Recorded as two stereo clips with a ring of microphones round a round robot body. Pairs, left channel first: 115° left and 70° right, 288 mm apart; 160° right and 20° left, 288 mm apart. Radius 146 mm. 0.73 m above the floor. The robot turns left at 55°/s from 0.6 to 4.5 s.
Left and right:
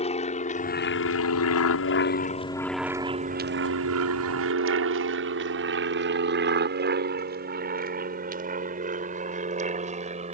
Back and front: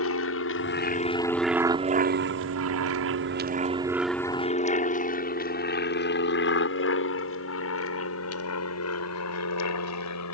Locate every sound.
0.0 s an aircraft: 175° left; by 10.4 s 135° right